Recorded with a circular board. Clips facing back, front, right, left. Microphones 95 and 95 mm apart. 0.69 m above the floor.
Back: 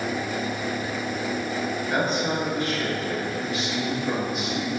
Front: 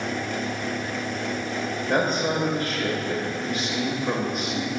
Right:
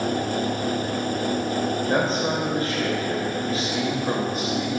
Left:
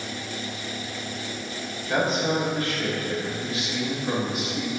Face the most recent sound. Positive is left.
turn(degrees=-40)